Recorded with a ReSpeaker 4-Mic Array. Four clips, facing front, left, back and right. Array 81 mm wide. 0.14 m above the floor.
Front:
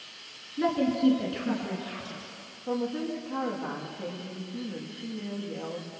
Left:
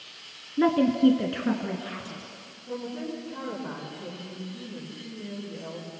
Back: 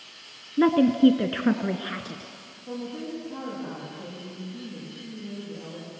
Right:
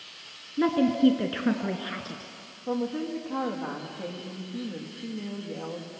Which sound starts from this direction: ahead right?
A woman speaking, at 2.7 s.